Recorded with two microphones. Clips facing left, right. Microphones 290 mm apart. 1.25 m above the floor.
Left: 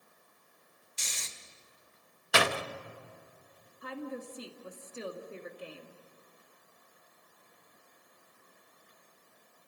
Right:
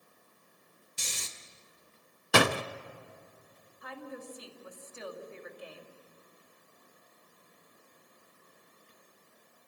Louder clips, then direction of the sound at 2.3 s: Right 4 dB; 55° right (ahead or behind).